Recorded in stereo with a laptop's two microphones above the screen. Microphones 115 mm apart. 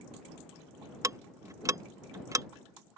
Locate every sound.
1.0 s ticking: 30° right (ahead or behind)